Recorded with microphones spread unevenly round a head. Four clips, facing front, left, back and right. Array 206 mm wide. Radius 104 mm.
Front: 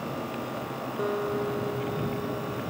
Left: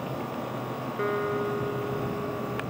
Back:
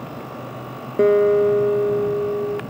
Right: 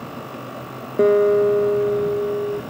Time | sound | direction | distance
1.0 | a guitar | 135° right | ?